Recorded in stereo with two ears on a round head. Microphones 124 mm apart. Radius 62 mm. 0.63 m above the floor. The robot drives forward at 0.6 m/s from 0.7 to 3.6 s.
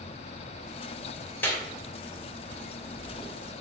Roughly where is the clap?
Centre.